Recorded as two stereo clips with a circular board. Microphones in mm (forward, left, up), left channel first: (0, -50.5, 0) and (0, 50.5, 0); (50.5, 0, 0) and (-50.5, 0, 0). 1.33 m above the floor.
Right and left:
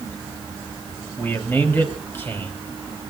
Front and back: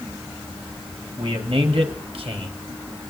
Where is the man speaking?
160° right, 3 m.